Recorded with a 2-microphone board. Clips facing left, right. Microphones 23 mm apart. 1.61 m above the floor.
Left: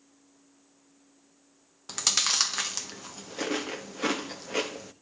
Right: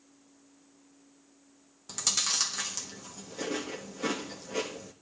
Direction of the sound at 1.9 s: 35° left (ahead or behind).